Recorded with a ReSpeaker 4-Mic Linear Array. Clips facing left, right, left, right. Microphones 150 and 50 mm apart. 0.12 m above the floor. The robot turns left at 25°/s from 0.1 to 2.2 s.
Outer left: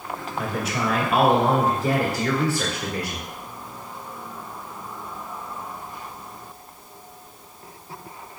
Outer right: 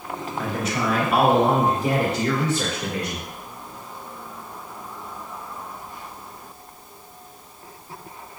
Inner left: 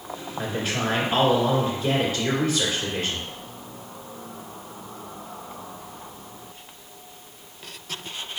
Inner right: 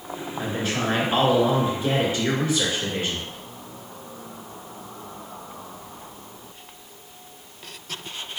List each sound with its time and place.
0.4 s a man speaking: 10° left, 1.8 m; by 3.3 s 35° right, 1.8 m